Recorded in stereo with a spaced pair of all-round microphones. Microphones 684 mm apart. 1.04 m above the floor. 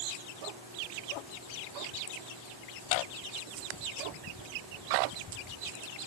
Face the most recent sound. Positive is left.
No sound to turn to.